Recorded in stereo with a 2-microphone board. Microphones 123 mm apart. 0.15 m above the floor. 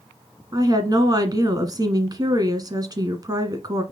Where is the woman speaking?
35° right (ahead or behind), 1.5 m.